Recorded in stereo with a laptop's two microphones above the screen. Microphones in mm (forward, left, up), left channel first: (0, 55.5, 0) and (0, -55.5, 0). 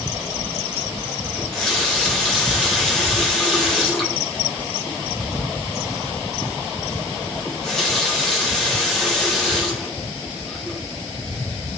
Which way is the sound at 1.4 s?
5° left (ahead or behind).